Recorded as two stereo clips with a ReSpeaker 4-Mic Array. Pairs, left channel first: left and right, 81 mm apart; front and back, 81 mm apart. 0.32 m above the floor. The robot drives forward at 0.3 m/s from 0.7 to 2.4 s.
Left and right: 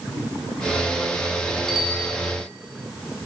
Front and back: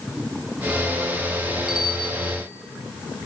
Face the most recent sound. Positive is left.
turn(degrees=180)